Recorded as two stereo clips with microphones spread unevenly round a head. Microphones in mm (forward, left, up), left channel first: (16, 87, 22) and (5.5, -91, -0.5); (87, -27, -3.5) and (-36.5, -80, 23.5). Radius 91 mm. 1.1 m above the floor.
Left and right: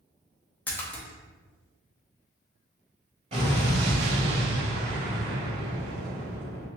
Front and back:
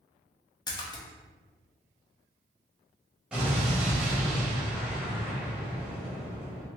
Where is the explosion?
115° right, 0.9 m.